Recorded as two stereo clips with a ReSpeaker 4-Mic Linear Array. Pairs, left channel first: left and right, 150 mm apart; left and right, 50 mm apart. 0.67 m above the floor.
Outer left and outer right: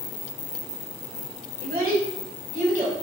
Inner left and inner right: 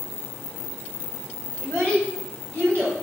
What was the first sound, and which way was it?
A child speaking, 75° right (ahead or behind).